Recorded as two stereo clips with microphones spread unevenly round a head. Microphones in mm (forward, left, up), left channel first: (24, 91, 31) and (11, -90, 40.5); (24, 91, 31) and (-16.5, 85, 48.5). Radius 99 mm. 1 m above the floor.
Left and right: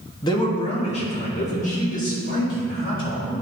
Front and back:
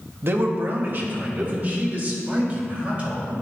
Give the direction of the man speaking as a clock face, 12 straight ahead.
7 o'clock.